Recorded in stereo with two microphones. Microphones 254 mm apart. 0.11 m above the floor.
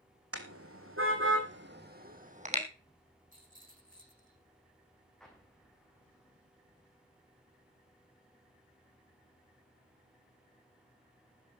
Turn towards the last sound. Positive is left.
turn(degrees=0)  # may be behind; listen again after turning